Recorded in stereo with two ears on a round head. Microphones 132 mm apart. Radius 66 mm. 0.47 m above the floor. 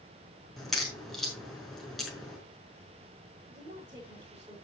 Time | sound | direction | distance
0.6 | a crack | centre (ahead or behind) | 5.5 m
3.5 | a woman speaking | 15° right (ahead or behind) | 7.5 m